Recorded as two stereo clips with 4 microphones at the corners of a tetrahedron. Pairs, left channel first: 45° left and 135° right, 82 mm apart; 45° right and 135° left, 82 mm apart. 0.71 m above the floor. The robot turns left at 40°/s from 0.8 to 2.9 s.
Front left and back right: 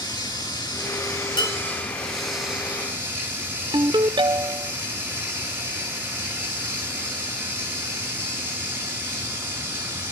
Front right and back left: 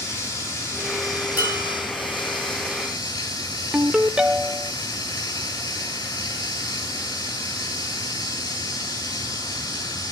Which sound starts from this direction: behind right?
A ringtone, at 3.7 s.